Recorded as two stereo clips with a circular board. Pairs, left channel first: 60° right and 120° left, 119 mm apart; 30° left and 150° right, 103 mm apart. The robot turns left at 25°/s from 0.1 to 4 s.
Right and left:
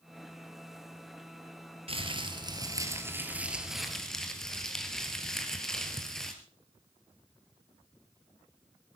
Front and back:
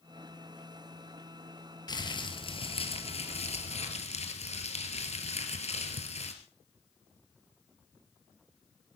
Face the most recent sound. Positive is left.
turn(degrees=25)